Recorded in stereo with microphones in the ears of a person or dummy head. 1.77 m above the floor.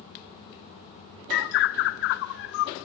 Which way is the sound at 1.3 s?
55° left (ahead or behind).